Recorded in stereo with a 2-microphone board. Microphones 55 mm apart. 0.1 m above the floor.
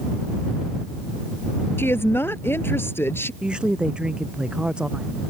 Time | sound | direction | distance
1.8 | a woman speaking | 45° left (ahead or behind) | ?
3.4 | a woman speaking | 15° right (ahead or behind) | ?